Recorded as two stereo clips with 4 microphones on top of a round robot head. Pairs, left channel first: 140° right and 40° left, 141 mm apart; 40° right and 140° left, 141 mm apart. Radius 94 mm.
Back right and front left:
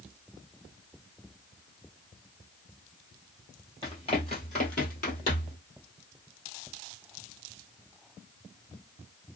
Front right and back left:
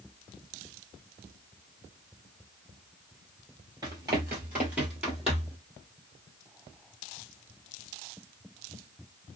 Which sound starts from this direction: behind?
Running footsteps, at 3.8 s.